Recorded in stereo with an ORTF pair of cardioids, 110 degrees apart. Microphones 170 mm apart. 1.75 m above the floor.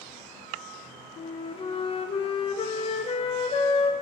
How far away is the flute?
About 0.6 m.